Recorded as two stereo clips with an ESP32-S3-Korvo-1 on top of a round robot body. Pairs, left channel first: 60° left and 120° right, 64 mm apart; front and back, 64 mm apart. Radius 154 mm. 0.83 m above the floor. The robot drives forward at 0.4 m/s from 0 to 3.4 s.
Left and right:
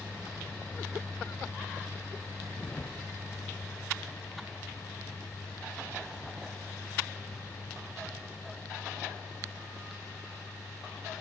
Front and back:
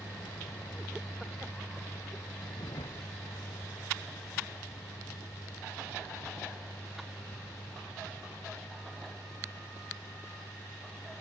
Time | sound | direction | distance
0.0 | a vehicle | 20° right | ?